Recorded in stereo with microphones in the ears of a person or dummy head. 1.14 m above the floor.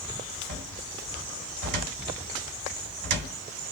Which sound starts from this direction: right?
A cupboard door, at 0.5 s.